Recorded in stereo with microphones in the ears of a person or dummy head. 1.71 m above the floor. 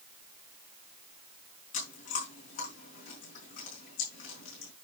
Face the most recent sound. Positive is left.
turn(degrees=50)  # may be behind; listen again after turning